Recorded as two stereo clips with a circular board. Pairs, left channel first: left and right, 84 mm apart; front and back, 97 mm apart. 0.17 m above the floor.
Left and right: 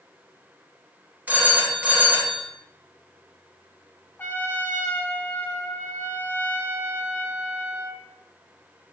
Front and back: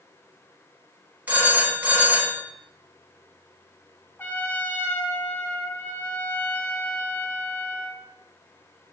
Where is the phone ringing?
130° right, 0.9 m.